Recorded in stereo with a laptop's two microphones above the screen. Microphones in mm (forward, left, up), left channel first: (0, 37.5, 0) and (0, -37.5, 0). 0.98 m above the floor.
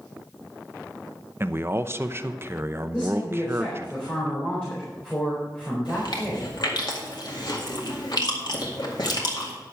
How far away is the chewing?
About 2 m.